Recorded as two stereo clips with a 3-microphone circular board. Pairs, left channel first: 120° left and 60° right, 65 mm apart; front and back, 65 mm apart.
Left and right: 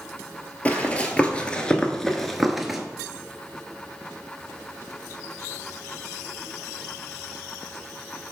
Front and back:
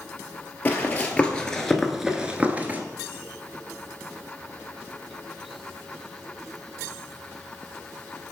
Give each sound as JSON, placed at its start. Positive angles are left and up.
{"t": 0.7, "sound": "running footsteps", "azimuth_deg": 55, "distance_m": 1.1}